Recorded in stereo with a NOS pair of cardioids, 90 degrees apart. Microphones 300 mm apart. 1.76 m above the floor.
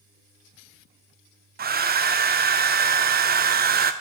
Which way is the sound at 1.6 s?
35° right.